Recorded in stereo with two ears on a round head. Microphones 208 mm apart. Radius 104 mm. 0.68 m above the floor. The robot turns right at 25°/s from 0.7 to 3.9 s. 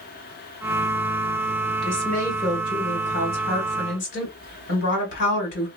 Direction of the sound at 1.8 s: 5° left.